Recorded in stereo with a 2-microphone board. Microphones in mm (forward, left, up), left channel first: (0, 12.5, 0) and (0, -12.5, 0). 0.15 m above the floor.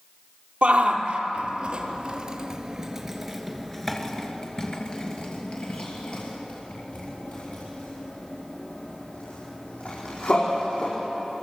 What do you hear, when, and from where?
0.6 s a shout: 45° right (ahead or behind), 3.5 m; by 10.9 s 80° left, 7.5 m